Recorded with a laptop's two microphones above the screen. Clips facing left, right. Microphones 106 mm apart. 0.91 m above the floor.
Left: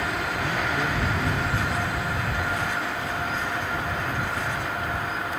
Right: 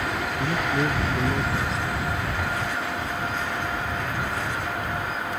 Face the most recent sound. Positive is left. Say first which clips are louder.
# right 4 dB
turn(degrees=-25)  # may be behind; listen again after turning